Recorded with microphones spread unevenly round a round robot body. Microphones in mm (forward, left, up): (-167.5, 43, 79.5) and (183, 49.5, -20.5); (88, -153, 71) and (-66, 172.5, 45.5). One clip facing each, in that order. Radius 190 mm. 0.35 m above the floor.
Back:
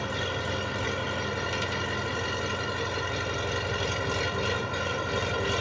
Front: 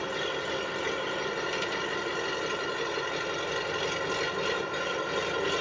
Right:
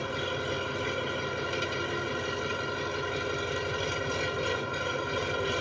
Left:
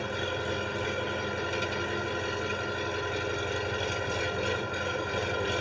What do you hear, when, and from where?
0.0 s an engine running: 150° right, 0.8 m